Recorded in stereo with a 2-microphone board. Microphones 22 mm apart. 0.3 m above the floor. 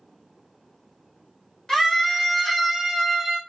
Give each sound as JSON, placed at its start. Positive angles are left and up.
{"t": 1.7, "sound": "a scream", "side_deg": 30, "distance_m": 1.8}